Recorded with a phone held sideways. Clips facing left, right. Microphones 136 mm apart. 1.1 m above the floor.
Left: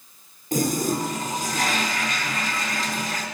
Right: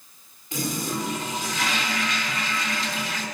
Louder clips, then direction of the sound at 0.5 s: Left 6 dB; 45° left (ahead or behind).